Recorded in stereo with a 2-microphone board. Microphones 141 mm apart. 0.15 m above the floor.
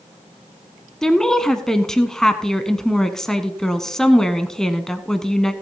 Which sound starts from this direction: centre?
A woman speaking, at 1.0 s.